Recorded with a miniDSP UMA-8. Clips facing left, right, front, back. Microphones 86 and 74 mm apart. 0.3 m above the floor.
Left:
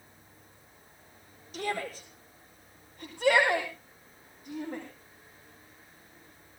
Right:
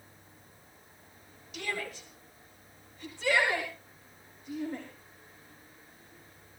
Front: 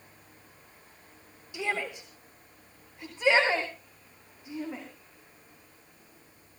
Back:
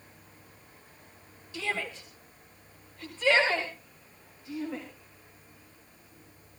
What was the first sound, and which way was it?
A shout, 65° left.